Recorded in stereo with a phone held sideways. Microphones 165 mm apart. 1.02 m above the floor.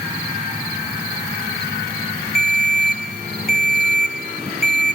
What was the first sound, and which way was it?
A ringtone, 65° left (ahead or behind).